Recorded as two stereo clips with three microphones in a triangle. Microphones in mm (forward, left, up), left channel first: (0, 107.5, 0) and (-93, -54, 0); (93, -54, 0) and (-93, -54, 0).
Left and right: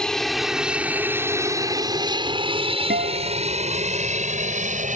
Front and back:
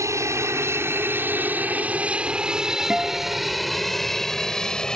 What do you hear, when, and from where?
0.0 s an aircraft: 140° left; by 5.0 s 85° right
2.9 s a guitar: 95° right